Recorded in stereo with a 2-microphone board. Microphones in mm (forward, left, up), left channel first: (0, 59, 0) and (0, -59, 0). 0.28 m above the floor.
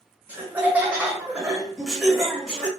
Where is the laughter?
15° right (ahead or behind), 2.0 m; by 2.7 s 5° left (ahead or behind), 1.7 m.